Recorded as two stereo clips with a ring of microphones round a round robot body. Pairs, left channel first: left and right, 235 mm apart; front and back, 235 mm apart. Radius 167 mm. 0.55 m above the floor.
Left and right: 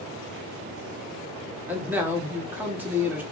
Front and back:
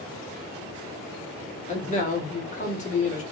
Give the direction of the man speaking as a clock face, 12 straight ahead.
12 o'clock.